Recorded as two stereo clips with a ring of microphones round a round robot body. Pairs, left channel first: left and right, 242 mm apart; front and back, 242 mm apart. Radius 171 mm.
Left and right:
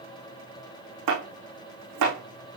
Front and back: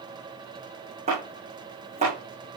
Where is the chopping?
105° right, 6 m.